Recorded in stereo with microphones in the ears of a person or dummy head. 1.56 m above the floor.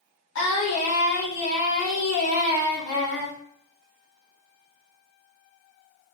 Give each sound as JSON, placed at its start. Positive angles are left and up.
{"t": 0.3, "sound": "singing", "side_deg": 70, "distance_m": 1.5}